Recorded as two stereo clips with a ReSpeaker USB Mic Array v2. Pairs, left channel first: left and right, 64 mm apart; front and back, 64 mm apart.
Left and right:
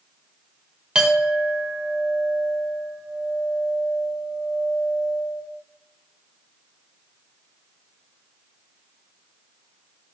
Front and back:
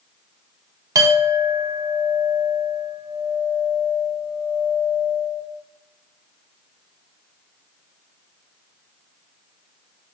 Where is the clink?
165° right, 1.3 m.